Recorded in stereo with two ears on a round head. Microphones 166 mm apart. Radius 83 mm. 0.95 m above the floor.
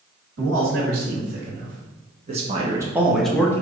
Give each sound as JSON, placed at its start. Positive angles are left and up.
{"t": 0.4, "sound": "a man speaking", "side_deg": -70, "distance_m": 2.5}